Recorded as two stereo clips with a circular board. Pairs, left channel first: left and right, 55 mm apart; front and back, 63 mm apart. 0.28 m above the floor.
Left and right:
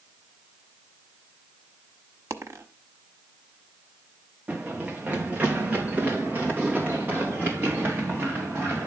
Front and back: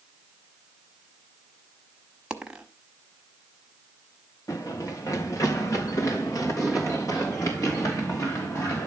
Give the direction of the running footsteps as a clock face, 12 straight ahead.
1 o'clock.